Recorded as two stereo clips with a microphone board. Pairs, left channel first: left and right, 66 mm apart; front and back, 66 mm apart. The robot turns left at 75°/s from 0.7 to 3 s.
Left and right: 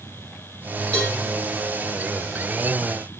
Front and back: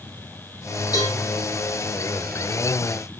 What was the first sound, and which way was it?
A cowbell, 20° left.